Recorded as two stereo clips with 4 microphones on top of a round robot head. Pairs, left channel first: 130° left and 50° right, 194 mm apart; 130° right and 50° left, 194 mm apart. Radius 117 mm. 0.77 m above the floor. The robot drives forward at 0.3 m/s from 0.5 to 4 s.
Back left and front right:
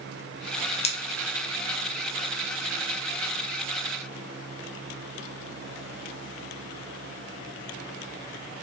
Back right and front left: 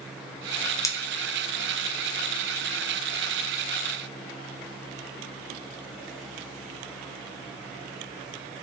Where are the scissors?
165° left, 0.6 m.